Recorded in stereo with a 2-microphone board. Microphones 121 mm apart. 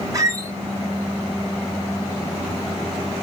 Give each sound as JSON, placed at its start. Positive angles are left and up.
{"t": 0.1, "sound": "a squeak", "side_deg": -30, "distance_m": 0.8}